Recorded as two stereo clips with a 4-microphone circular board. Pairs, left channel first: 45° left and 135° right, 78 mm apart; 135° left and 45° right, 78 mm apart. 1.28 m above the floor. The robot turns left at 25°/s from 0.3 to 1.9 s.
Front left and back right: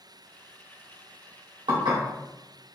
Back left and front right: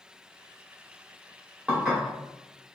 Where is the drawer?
I don't hear a drawer.